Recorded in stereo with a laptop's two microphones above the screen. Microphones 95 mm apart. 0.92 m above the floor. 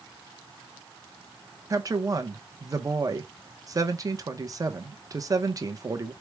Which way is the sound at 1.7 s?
35° right (ahead or behind).